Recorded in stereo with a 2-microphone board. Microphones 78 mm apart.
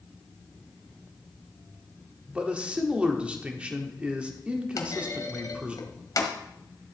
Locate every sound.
2.3 s a man speaking: 15° right (ahead or behind), 1.5 m
4.8 s a clunk: 50° left (ahead or behind), 1.5 m